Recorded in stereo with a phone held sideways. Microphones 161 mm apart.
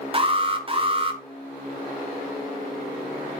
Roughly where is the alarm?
Right.